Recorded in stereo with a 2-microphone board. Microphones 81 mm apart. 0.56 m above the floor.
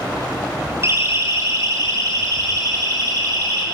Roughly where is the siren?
Right.